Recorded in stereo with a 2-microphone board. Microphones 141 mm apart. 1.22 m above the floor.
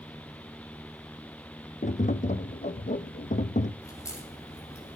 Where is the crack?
20° left (ahead or behind), 8 m.